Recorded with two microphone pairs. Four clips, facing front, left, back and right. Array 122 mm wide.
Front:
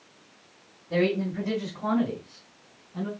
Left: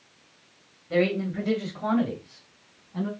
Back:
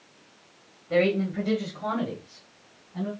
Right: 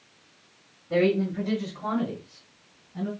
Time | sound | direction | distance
0.9 | a man speaking | 170° left | 1.8 m